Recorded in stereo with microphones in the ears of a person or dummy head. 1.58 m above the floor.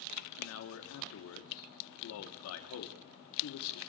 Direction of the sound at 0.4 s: 75° left (ahead or behind).